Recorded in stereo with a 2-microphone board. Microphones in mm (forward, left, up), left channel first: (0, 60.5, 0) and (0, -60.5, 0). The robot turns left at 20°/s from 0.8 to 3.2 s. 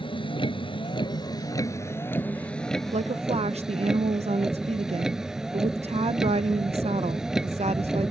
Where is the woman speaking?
65° right (ahead or behind); by 8.1 s 60° right (ahead or behind).